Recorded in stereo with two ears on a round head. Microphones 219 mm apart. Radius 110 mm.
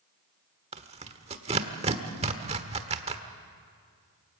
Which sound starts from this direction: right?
Tearing paper, at 0.7 s.